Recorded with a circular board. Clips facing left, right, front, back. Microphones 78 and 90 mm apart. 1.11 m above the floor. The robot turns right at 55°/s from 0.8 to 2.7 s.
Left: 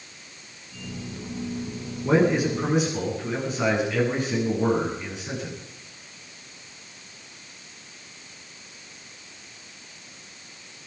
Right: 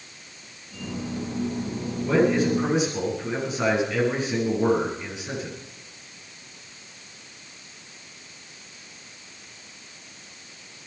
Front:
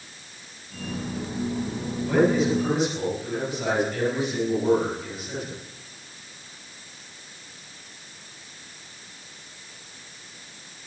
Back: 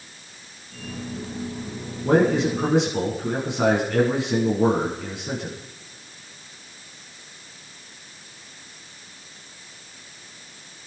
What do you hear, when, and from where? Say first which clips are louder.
2.0 s a man speaking: even, back 2 dB; 145° left, 8.5 m; by 5.5 s straight behind, 8.5 m